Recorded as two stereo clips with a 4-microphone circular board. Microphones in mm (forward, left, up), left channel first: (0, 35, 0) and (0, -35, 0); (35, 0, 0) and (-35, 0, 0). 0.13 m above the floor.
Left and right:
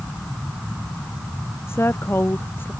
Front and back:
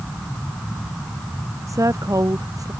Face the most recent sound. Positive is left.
turn(degrees=150)